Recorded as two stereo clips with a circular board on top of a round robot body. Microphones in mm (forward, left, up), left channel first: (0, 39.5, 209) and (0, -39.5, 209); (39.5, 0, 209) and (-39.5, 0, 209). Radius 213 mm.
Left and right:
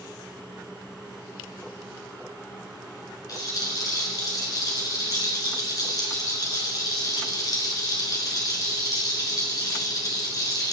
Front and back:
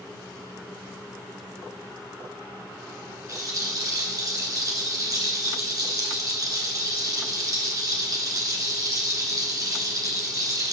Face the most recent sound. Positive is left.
turn(degrees=135)